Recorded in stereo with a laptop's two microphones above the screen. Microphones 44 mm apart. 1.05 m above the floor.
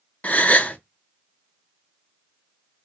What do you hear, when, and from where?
0.2 s a gasp: 30° left (ahead or behind), 0.5 m